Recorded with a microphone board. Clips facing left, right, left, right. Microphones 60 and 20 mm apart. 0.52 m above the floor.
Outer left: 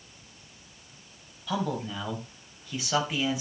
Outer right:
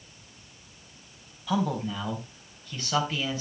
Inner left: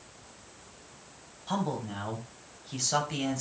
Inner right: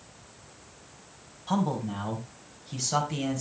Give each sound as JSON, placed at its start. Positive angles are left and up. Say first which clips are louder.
{"t": 1.5, "sound": "a man speaking", "louder": "outer right 3 dB, inner right 4 dB", "side_deg": -5, "distance_m": 4.0}